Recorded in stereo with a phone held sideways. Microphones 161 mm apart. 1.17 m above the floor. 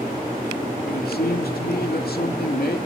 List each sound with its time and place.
0.8 s a man speaking: 75° left (ahead or behind), 2.5 m